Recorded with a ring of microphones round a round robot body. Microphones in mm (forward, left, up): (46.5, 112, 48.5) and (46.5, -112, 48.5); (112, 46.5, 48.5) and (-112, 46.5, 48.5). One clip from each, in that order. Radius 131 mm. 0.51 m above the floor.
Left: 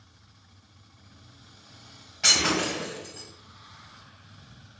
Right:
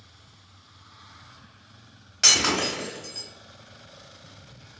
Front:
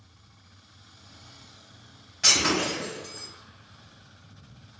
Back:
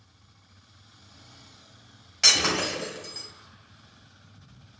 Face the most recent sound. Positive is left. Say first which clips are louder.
# right 2 dB, back 1 dB
turn(degrees=-120)